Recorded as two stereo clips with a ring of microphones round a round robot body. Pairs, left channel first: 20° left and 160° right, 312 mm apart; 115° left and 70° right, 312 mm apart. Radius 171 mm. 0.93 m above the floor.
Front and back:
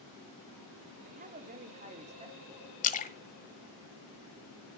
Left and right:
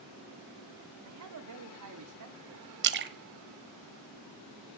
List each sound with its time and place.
1.1 s a man speaking: 95° right, 3 m; by 2.7 s 85° right, 4 m
2.8 s a splash: 30° right, 0.8 m